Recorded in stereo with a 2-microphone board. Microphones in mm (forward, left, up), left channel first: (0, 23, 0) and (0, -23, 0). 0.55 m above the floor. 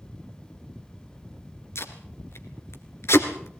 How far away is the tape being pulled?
About 2.5 m.